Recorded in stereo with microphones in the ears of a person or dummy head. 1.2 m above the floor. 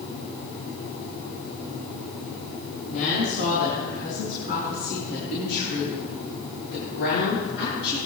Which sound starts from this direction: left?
A woman speaking, at 2.9 s.